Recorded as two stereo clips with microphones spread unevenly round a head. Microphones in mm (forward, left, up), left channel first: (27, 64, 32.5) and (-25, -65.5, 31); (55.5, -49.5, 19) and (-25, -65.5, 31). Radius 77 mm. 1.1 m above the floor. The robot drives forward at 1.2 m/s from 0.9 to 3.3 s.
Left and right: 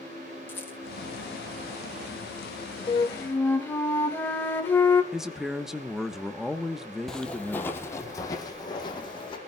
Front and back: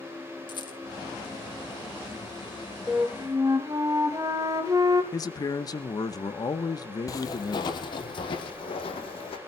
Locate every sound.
0.5 s a rattle: 5° right, 2.5 m
2.9 s a flute: 115° left, 1.0 m; by 5.0 s 140° left, 1.3 m
5.1 s a man speaking: 25° right, 1.1 m
7.1 s footsteps: 15° right, 1.3 m; by 9.4 s 15° left, 2.5 m